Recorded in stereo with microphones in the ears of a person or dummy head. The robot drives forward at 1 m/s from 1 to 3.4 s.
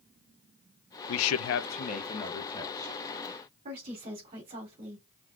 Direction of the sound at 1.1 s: 65° left (ahead or behind).